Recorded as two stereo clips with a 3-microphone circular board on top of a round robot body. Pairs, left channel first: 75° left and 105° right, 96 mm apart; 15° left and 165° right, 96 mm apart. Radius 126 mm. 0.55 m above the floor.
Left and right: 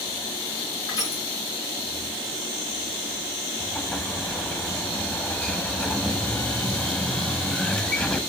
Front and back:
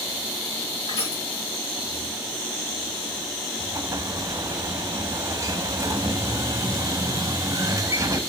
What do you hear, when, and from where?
0.9 s crushing: 25° left, 5 m
3.6 s an explosion: 150° left, 1.1 m